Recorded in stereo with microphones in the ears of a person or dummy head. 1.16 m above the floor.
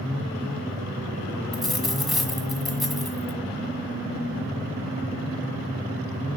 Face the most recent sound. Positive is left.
turn(degrees=0)  # may be behind; listen again after turning